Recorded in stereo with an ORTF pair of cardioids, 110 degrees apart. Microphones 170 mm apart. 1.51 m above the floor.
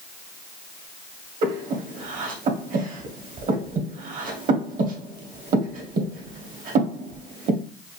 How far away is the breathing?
About 1.3 m.